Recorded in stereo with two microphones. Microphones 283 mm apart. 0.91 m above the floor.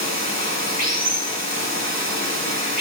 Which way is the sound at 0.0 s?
75° left (ahead or behind).